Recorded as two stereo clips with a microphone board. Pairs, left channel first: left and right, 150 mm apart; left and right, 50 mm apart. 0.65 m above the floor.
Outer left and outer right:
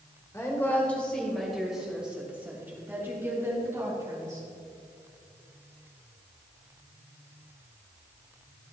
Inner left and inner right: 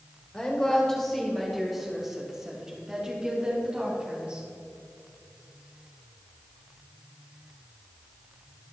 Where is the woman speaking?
20° left (ahead or behind), 1.9 m; by 4.5 s 20° right (ahead or behind), 4.5 m.